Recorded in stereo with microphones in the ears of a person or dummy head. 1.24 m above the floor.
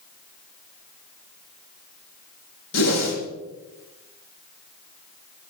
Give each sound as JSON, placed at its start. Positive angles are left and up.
{"t": 2.7, "sound": "a whoosh", "side_deg": 75, "distance_m": 5.0}